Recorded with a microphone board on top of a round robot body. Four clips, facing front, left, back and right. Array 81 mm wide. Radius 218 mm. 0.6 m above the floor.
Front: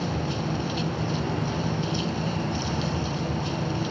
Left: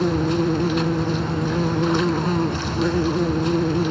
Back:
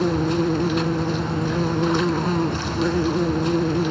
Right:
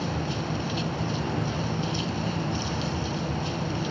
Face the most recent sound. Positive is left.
turn(degrees=135)